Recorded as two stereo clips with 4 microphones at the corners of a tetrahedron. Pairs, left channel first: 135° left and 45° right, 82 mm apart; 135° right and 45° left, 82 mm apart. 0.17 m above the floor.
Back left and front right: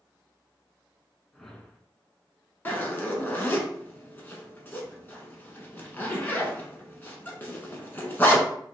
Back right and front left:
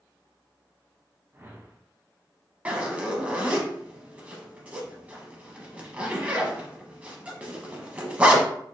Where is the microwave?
No microwave in this recording.